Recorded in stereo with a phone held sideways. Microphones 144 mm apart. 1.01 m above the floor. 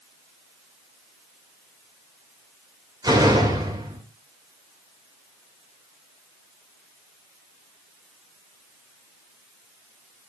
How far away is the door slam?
About 2.5 m.